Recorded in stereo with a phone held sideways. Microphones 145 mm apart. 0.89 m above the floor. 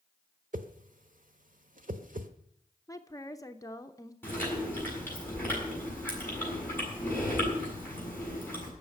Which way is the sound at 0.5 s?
65° right (ahead or behind).